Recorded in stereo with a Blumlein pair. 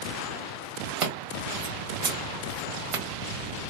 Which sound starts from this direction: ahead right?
Scissors, at 1.0 s.